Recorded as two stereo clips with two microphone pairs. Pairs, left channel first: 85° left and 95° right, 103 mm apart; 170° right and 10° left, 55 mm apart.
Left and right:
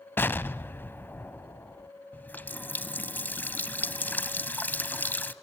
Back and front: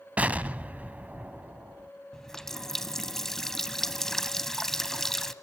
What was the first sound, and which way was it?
An explosion, 45° left.